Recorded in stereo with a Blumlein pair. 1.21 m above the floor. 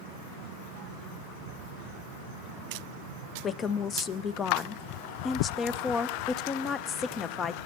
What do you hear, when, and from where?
3.4 s a woman speaking: 20° left, 0.7 m